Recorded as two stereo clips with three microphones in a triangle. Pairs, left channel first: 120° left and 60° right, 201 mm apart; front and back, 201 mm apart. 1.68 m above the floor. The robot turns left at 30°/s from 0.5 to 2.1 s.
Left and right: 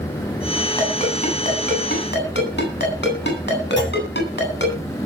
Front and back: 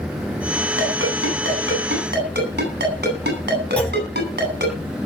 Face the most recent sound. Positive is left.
turn(degrees=-85)